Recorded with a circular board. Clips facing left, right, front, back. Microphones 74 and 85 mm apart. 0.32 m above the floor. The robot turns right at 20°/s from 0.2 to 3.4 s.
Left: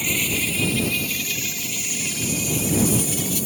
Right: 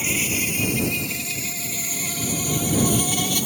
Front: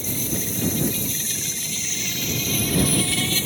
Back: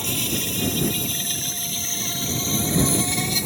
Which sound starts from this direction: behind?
An insect, at 0.0 s.